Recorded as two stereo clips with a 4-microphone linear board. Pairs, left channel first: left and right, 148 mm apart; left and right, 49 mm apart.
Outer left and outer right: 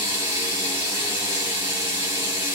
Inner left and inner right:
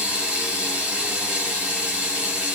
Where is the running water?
20° right (ahead or behind), 2.5 m.